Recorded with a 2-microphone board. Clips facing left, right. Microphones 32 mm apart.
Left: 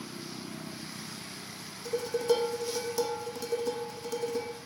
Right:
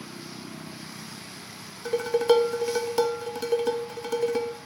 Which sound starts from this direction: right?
Dishes clattering, at 1.9 s.